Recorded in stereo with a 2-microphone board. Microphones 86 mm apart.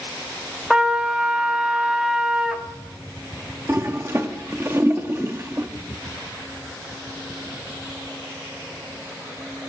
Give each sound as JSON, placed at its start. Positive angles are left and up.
{"t": 0.7, "sound": "a trumpet", "side_deg": -10, "distance_m": 0.8}
{"t": 3.7, "sound": "a toilet flushing", "side_deg": -30, "distance_m": 0.6}